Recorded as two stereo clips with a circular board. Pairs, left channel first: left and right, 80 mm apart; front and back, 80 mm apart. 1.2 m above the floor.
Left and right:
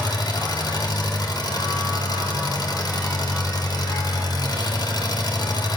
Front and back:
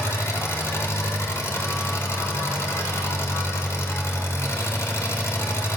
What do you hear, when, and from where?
0.0 s an engine running: 55° left, 2.5 m